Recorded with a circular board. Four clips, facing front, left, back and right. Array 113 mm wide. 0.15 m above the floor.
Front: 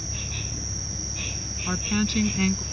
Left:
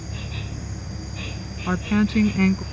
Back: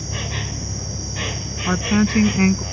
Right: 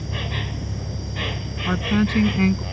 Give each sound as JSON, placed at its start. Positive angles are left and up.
{"t": 0.0, "sound": "an insect", "azimuth_deg": -140}
{"t": 1.7, "sound": "a woman speaking", "azimuth_deg": 175}